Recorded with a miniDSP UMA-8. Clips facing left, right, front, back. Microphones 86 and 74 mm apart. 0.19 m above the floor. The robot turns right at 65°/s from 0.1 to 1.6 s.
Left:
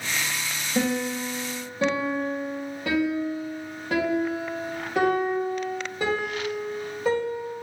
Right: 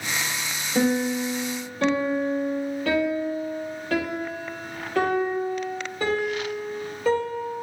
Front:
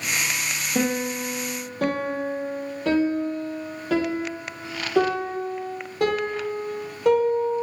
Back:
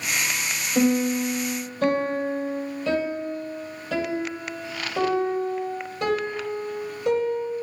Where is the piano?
40° right, 2.5 m; by 7.6 s 15° left, 2.5 m.